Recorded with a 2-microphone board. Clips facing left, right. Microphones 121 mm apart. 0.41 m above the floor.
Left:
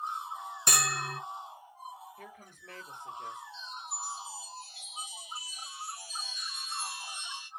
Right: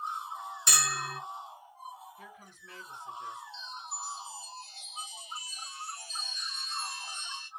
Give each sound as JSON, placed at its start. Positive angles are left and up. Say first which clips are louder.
{"t": 0.7, "sound": "a bell", "louder": "left 2 dB", "side_deg": 45, "distance_m": 0.6}
{"t": 2.2, "sound": "a woman speaking", "louder": "left 1 dB", "side_deg": 50, "distance_m": 1.5}
{"t": 3.5, "sound": "a chime", "louder": "even", "side_deg": 10, "distance_m": 1.1}